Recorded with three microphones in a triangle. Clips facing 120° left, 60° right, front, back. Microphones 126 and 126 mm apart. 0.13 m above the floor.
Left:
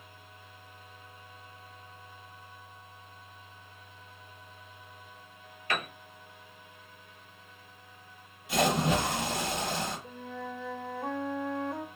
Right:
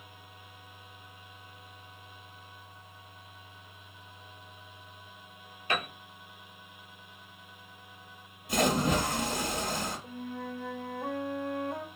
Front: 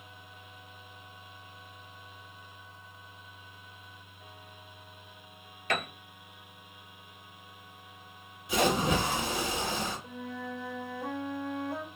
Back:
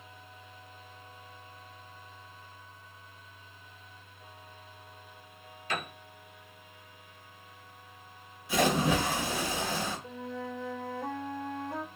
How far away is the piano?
About 0.7 m.